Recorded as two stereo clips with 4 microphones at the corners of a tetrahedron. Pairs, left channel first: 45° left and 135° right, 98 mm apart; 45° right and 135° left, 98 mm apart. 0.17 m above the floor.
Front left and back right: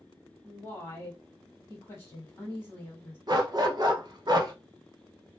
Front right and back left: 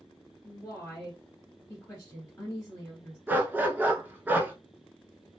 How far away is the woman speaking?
About 1.3 m.